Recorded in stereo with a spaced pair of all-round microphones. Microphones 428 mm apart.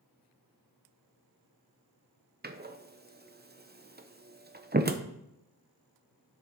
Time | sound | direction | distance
2.4 | a door slam | 25° right (ahead or behind) | 0.7 m